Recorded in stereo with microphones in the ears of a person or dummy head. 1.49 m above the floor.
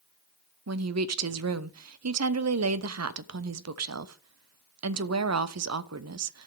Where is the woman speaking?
85° right, 0.8 m.